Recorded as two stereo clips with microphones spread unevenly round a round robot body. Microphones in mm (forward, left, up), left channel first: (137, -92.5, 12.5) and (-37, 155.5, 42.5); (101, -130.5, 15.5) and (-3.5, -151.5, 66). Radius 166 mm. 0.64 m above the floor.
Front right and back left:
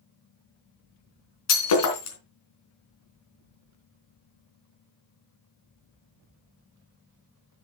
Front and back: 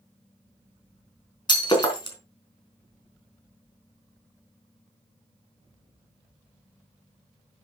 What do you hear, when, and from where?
1.5 s breaking glass: 35° right, 4 m